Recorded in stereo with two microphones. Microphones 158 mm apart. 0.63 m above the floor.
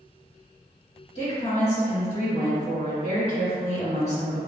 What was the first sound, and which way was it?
A woman speaking, 45° left (ahead or behind).